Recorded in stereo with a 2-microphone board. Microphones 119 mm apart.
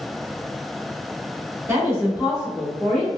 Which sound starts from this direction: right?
A woman speaking, at 1.7 s.